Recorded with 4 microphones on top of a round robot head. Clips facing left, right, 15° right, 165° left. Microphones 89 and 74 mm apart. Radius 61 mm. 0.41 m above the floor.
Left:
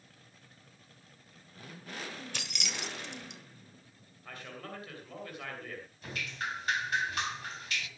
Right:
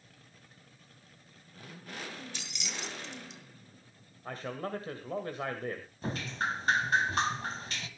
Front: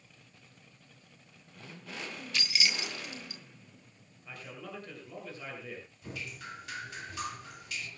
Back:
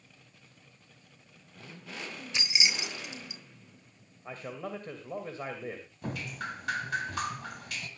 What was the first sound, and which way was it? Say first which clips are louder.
Keys jangling: left 2 dB, back 1 dB; 100° left.